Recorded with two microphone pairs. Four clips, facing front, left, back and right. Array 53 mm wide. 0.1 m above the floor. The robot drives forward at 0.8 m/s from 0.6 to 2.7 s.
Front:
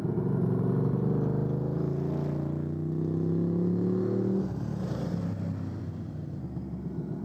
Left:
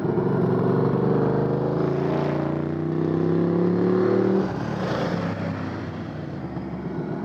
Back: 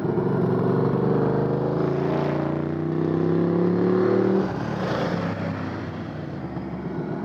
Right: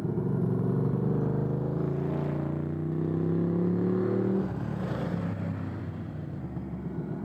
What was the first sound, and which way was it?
A motorcycle, 135° left.